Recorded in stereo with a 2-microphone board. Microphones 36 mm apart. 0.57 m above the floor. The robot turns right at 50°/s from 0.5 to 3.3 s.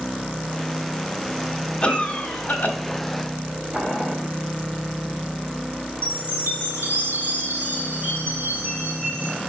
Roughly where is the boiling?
Centre.